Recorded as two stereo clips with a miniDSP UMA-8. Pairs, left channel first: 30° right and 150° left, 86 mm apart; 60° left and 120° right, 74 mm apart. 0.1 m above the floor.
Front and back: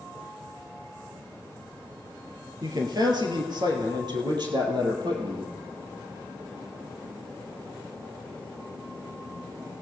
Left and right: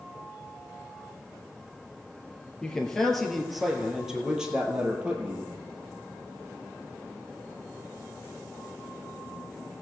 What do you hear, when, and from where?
2.6 s a man speaking: 135° left, 2 m; by 5.5 s 170° left, 3 m